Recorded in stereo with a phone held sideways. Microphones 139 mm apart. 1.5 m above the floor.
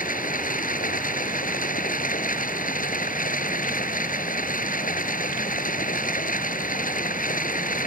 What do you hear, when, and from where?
0.0 s running water: 75° left (ahead or behind)